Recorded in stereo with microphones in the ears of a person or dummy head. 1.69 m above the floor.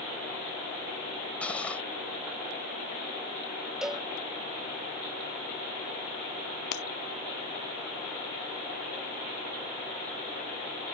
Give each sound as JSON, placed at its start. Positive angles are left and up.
{"t": 1.4, "sound": "cutlery clinking", "side_deg": 10}
{"t": 3.8, "sound": "a cowbell", "side_deg": -5}
{"t": 6.7, "sound": "breaking glass", "side_deg": 70}